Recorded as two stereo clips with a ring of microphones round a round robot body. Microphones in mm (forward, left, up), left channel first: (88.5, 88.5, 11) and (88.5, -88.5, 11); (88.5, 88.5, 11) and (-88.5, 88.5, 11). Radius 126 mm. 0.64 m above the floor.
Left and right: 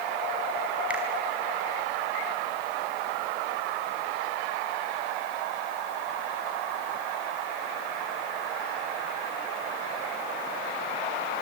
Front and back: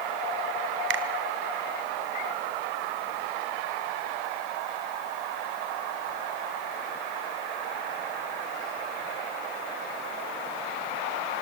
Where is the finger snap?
175° right, 1.5 m.